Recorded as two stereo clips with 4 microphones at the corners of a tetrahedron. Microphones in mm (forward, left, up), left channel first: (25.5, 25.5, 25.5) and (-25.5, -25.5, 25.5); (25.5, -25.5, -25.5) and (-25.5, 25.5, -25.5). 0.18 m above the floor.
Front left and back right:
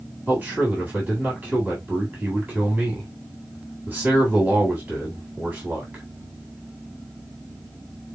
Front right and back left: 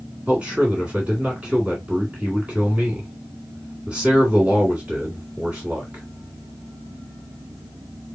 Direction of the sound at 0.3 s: 170° right.